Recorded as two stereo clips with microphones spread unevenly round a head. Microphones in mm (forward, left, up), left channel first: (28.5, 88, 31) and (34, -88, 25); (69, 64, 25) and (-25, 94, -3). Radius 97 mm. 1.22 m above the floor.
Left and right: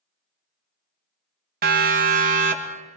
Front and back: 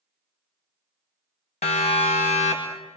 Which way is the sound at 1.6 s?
65° right.